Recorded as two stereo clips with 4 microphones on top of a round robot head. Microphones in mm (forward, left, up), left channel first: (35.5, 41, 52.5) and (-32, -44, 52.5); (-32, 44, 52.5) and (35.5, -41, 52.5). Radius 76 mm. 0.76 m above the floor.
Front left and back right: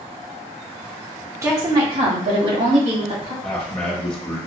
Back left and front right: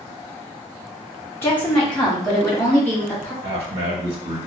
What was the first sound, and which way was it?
A woman speaking, 175° right.